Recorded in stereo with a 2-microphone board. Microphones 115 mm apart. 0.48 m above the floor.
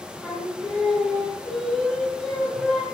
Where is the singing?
5° left (ahead or behind), 5.5 m.